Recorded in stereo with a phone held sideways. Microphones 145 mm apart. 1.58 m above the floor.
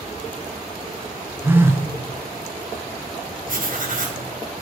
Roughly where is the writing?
Right.